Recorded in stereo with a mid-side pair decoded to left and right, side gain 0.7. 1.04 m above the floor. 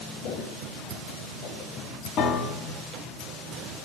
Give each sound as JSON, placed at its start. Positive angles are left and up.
{"t": 0.2, "sound": "footsteps", "azimuth_deg": 55, "distance_m": 8.5}
{"t": 2.2, "sound": "a piano", "azimuth_deg": 55, "distance_m": 4.0}